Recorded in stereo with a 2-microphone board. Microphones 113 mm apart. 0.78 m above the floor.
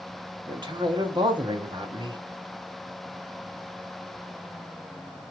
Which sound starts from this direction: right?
A man speaking, at 0.5 s.